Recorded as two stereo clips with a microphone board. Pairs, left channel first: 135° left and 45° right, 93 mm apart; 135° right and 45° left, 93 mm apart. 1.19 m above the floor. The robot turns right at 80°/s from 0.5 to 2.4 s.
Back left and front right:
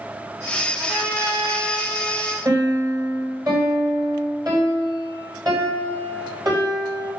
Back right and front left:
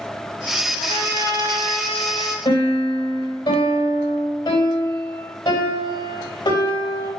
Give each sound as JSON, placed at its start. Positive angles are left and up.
{"t": 0.8, "sound": "a trumpet", "azimuth_deg": -140, "distance_m": 4.0}
{"t": 2.5, "sound": "a piano", "azimuth_deg": -95, "distance_m": 4.0}